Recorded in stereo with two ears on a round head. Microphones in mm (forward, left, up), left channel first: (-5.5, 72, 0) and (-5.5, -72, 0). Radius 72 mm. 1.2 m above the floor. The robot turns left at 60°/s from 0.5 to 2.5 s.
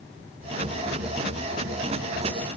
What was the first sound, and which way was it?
Only background noise.